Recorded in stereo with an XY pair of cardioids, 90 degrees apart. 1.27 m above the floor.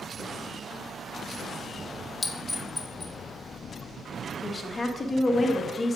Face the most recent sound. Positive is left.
turn(degrees=35)